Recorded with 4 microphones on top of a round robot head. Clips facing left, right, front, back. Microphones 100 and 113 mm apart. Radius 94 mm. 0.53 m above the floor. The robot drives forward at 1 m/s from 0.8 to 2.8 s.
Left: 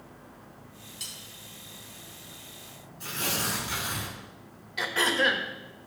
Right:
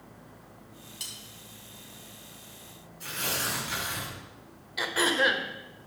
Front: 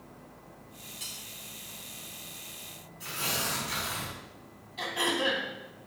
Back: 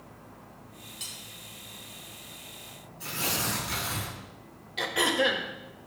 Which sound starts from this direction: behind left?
Tearing paper, at 3.0 s.